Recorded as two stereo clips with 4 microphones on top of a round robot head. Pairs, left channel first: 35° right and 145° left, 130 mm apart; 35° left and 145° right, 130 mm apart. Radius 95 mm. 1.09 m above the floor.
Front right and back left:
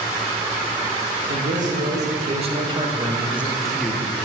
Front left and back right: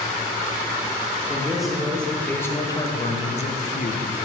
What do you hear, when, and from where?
1.3 s a man speaking: 130° left, 2 m; by 4.2 s 35° left, 1.5 m